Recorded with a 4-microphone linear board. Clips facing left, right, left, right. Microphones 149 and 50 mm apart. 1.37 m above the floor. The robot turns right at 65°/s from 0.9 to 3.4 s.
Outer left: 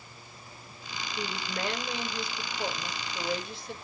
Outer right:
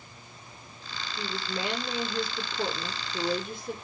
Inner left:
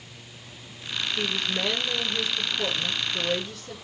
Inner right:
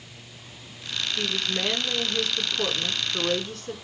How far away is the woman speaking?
About 5 m.